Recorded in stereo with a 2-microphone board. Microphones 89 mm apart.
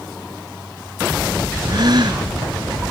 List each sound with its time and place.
1.7 s a gasp: 55° right (ahead or behind)